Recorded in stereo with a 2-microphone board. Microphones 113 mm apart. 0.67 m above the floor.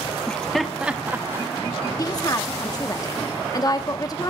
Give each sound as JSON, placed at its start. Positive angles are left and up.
{"t": 0.3, "sound": "laughter", "side_deg": 10, "distance_m": 0.9}
{"t": 2.0, "sound": "a woman speaking", "side_deg": 35, "distance_m": 1.3}